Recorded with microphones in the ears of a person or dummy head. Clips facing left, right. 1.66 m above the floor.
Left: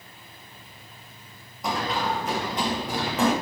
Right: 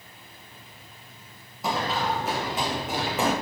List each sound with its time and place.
1.6 s running footsteps: 5° right (ahead or behind), 3.5 m